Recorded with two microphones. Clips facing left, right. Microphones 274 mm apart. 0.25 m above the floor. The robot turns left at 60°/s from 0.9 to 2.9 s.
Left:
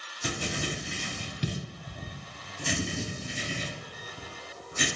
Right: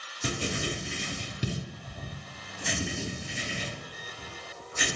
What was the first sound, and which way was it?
Writing, 30° right (ahead or behind).